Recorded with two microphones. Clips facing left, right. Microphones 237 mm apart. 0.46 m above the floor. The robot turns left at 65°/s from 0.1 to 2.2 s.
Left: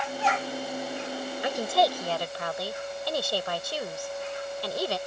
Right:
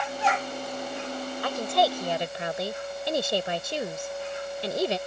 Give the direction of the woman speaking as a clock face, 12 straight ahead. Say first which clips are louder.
Even; 11 o'clock.